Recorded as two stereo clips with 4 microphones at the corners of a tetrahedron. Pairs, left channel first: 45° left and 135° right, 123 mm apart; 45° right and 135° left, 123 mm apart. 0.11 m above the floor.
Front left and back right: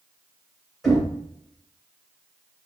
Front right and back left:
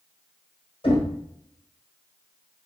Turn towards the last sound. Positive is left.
turn(degrees=-45)